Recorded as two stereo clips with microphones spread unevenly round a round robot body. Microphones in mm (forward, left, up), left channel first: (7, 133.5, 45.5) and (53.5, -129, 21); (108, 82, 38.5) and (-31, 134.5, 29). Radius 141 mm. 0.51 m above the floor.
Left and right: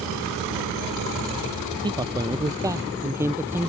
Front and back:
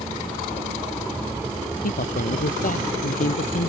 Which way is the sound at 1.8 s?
5° right.